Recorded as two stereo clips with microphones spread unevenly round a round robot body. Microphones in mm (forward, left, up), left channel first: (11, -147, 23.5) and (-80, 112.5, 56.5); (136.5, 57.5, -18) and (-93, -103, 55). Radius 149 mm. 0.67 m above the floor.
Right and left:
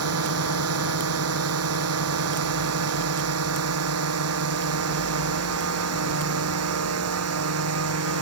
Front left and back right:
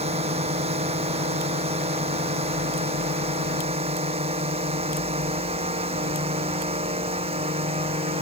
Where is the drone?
145° left.